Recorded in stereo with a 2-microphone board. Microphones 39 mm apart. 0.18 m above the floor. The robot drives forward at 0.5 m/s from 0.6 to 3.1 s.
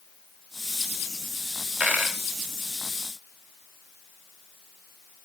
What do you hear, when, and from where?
1.8 s a dropped coin: 35° right (ahead or behind), 2 m; by 2.2 s 30° right (ahead or behind), 2.5 m